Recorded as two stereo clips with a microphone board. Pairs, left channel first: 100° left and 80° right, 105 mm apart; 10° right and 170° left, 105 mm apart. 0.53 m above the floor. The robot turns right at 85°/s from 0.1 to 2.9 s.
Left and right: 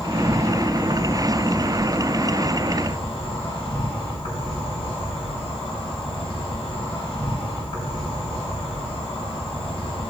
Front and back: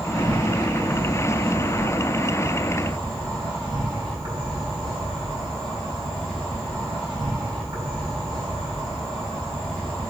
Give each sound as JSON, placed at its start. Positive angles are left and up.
{"t": 0.0, "sound": "an insect", "azimuth_deg": -105, "distance_m": 4.0}